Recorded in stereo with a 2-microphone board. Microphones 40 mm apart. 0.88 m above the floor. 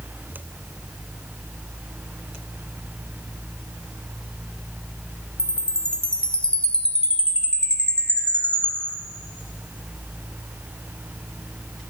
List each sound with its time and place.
5.4 s a chime: 25° left (ahead or behind), 0.5 m